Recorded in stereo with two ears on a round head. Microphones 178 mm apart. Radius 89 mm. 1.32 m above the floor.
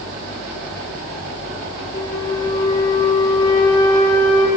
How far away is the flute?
About 4.5 m.